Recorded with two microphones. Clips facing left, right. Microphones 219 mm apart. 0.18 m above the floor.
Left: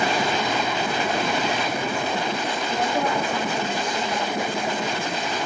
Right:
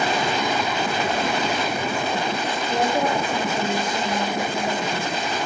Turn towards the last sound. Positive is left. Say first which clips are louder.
# right 3 dB
turn(degrees=-20)  # may be behind; listen again after turning